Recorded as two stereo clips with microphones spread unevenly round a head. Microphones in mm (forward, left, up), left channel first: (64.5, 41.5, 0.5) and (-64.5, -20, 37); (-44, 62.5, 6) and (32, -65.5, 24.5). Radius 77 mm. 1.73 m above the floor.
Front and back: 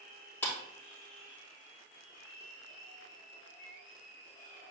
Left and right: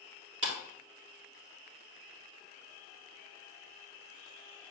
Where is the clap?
55° right, 3 m.